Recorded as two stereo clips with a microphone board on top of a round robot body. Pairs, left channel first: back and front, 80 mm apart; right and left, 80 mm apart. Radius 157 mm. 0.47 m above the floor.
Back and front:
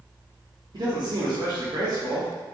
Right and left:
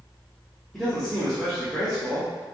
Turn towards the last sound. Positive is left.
turn(degrees=0)